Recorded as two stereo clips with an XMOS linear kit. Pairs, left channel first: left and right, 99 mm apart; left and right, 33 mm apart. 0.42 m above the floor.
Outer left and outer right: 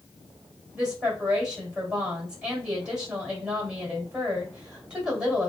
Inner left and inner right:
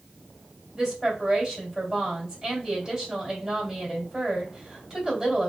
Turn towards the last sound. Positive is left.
turn(degrees=-10)  # may be behind; listen again after turning